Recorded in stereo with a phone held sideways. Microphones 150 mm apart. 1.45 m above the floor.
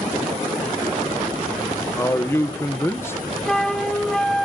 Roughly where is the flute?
Centre.